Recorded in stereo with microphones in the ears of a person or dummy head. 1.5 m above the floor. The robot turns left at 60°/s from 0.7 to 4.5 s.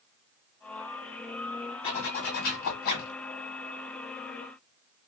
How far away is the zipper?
About 1.3 m.